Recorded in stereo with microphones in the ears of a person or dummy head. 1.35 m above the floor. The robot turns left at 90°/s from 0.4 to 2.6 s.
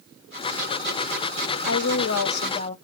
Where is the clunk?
I don't hear a clunk.